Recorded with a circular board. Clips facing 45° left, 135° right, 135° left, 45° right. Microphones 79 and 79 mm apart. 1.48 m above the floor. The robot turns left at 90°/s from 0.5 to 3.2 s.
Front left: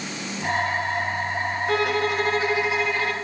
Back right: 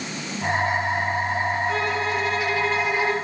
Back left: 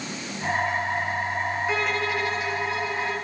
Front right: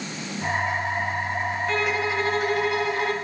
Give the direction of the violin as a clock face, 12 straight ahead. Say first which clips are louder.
Front left 2 dB, front right 3 dB; 10 o'clock.